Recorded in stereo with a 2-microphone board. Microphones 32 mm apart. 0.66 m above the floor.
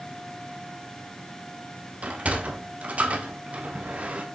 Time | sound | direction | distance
2.0 | a sliding door | 45° right (ahead or behind) | 1.0 m